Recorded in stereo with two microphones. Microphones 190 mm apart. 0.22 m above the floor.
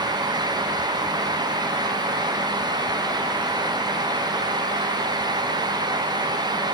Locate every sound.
Only background noise.